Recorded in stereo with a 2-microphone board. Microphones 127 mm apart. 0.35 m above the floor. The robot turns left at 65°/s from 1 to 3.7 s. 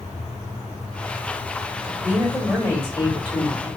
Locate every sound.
1.8 s a woman speaking: 145° right, 1.9 m; by 3.7 s 95° left, 1.9 m